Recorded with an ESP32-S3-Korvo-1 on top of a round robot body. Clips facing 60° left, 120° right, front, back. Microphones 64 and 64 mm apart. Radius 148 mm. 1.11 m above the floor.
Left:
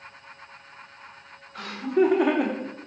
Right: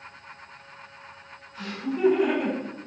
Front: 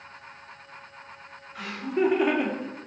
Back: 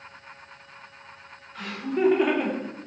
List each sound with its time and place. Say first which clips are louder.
1.6 s laughter: left 6 dB, even; 85° left, 3.5 m; by 2.9 s 80° left, 2.5 m